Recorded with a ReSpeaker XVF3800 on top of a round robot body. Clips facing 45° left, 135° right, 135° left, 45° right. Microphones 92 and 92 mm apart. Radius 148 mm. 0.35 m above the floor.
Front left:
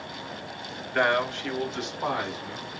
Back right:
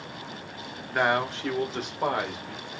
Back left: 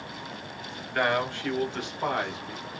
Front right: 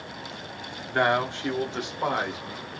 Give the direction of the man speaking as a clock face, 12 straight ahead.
2 o'clock.